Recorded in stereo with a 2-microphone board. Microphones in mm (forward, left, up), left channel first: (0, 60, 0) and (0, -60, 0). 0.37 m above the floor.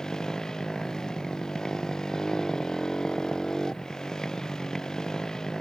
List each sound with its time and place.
0.0 s a motorcycle: 5° left (ahead or behind)